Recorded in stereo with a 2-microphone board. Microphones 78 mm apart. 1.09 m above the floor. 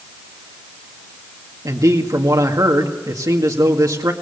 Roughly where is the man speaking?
Right.